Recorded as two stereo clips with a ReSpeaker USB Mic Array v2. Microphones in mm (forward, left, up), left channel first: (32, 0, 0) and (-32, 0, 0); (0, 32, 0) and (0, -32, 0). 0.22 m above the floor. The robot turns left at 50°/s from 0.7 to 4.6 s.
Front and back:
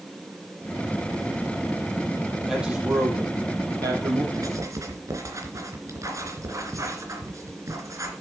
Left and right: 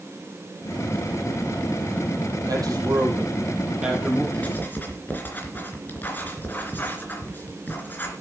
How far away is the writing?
About 3 m.